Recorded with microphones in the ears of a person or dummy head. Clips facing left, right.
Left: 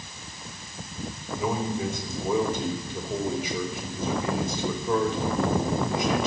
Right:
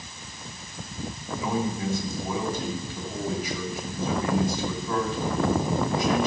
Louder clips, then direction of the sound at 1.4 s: Even; 20° left (ahead or behind).